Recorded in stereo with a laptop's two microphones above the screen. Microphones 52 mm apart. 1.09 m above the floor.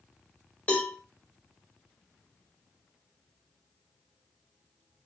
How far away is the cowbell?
About 0.7 m.